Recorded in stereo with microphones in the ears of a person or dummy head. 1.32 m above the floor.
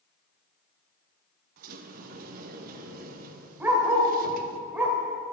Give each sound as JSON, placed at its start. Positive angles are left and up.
{"t": 1.6, "sound": "a sliding door", "side_deg": -50, "distance_m": 0.9}
{"t": 3.6, "sound": "a dog barking", "side_deg": -10, "distance_m": 1.6}